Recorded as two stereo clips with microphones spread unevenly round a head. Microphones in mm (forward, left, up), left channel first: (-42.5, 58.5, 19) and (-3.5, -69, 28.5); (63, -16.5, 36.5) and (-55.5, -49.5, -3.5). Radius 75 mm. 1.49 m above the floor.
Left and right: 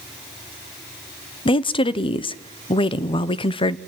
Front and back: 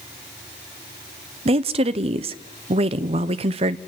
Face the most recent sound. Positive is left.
turn(degrees=155)